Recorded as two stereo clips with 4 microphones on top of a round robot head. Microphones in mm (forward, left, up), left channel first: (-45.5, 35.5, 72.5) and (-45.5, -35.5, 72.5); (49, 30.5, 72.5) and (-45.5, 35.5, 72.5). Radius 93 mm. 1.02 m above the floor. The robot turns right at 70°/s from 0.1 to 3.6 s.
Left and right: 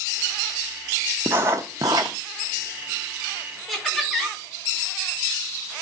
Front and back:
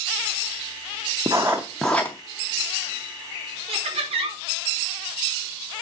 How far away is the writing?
About 0.5 m.